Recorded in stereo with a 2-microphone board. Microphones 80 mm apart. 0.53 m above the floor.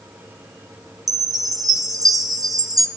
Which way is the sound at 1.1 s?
50° right (ahead or behind).